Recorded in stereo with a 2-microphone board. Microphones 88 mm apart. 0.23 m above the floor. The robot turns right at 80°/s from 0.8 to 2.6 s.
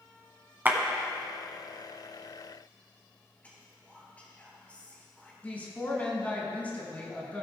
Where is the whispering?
20° left (ahead or behind), 4 m.